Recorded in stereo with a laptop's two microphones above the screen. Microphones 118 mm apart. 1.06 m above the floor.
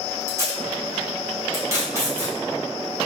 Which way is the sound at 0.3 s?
25° right (ahead or behind).